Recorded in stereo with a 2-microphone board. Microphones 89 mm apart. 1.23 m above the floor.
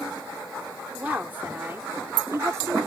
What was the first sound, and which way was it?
A woman speaking, 15° right (ahead or behind).